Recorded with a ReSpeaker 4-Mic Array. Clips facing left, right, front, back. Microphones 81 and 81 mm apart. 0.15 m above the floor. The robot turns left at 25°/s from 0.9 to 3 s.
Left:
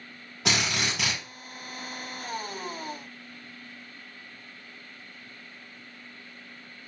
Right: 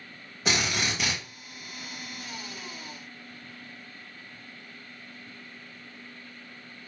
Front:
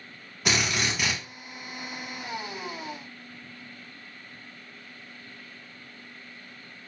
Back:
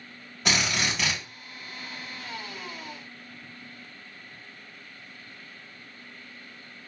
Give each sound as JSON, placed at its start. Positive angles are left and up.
{"t": 0.5, "sound": "a drill", "azimuth_deg": 85, "distance_m": 1.7}